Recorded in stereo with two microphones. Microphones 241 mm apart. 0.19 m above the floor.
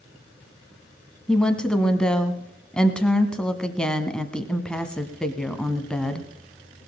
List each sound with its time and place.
1.3 s a woman speaking: 5° left (ahead or behind), 1.3 m